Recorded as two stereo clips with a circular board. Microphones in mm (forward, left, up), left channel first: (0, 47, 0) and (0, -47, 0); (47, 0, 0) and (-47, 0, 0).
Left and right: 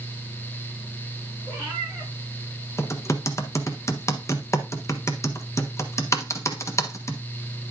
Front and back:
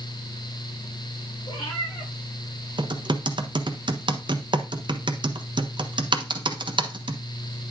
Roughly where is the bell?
No bell in this recording.